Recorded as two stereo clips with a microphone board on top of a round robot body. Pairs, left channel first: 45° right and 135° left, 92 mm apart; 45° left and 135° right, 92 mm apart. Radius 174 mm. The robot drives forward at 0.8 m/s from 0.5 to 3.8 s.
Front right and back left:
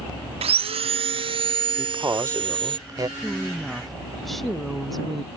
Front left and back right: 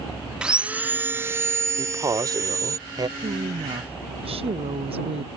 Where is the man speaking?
175° right.